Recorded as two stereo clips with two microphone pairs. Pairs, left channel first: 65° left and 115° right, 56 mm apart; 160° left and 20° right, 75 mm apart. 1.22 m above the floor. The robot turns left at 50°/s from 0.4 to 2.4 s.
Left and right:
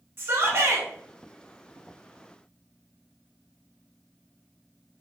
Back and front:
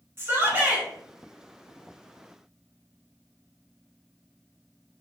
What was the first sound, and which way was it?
A shout, 70° right.